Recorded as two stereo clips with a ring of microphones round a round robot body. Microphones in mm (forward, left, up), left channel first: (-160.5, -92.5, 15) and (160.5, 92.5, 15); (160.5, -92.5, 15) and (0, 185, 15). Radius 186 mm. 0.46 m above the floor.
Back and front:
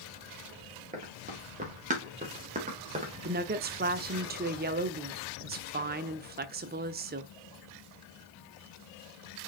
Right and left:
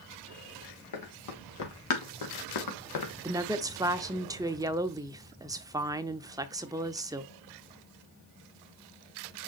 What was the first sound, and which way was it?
Running footsteps, 40° right.